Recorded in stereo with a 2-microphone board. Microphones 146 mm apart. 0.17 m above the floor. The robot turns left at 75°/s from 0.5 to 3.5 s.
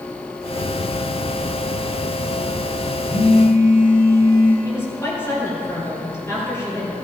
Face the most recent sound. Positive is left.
turn(degrees=20)  # may be behind; listen again after turning